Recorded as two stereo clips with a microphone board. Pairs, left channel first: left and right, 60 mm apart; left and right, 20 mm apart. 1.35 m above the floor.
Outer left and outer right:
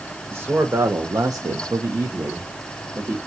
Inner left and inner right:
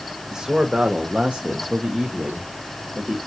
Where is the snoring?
I don't hear snoring.